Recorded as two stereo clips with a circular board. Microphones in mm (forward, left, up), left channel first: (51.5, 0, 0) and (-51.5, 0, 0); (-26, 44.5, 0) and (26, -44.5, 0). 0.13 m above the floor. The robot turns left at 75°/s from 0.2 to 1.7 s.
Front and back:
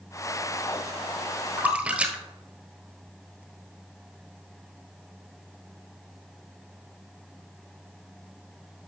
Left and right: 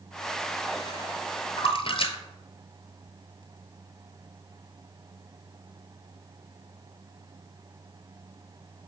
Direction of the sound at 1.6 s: 115° left.